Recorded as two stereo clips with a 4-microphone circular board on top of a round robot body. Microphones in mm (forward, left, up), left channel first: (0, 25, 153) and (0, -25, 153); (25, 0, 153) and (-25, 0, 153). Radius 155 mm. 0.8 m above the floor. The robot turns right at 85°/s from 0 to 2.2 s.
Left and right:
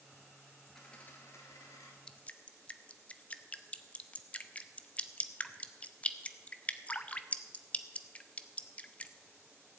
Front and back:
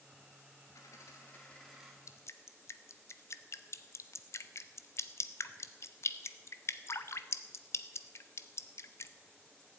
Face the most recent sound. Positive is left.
turn(degrees=25)